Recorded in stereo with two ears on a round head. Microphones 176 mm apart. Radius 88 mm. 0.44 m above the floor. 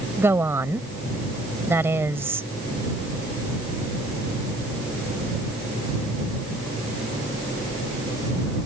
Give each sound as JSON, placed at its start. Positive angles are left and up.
{"t": 0.2, "sound": "a woman speaking", "side_deg": -15}